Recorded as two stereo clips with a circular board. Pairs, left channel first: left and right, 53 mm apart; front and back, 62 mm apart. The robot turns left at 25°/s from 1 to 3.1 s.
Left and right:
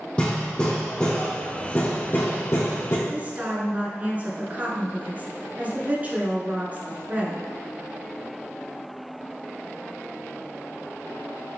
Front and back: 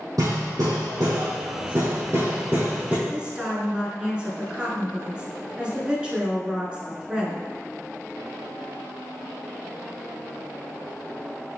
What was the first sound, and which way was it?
Hammering, 160° left.